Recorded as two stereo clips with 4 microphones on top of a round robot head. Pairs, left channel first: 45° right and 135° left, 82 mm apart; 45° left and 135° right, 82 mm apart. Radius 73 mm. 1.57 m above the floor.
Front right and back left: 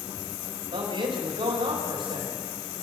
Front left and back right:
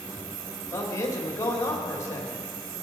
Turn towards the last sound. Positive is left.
turn(degrees=105)